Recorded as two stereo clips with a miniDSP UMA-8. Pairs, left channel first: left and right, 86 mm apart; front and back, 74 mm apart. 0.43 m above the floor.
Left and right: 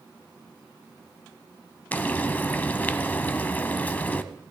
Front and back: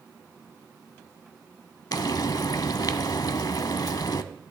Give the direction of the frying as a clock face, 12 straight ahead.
11 o'clock.